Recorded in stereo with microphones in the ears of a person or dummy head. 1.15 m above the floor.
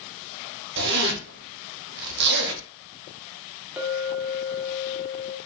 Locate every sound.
0.8 s a zipper: 60° right (ahead or behind), 1.2 m
3.8 s a clink: 5° right (ahead or behind), 1.1 m